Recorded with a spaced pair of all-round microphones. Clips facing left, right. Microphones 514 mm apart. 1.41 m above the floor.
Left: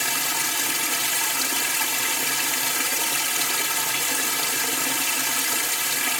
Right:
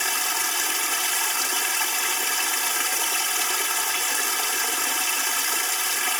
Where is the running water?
55° left (ahead or behind).